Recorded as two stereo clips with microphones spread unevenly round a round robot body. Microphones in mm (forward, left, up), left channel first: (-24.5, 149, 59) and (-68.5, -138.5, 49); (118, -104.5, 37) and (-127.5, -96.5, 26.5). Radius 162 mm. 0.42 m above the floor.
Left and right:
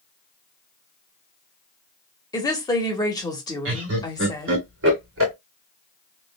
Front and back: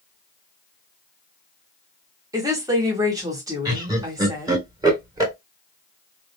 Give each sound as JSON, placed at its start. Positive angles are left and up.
{"t": 2.3, "sound": "a woman speaking", "azimuth_deg": 140, "distance_m": 1.1}
{"t": 3.6, "sound": "laughter", "azimuth_deg": -115, "distance_m": 2.0}